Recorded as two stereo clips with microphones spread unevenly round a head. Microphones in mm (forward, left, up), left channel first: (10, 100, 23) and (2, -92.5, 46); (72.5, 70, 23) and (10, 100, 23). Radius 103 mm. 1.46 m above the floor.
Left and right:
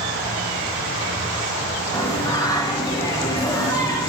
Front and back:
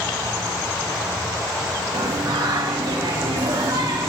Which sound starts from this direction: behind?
Singing, at 1.9 s.